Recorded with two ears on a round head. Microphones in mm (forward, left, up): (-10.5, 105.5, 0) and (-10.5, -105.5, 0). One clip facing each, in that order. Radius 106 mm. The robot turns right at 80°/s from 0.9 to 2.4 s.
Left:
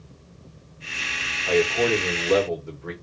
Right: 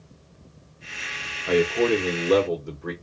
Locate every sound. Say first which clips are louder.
1.5 s a man speaking: right 1 dB; 20° right (ahead or behind), 0.8 m; by 2.9 s 15° right (ahead or behind), 0.8 m